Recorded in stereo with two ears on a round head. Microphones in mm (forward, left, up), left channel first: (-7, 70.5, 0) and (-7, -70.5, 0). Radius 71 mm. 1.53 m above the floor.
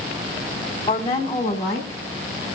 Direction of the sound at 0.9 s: 25° left (ahead or behind).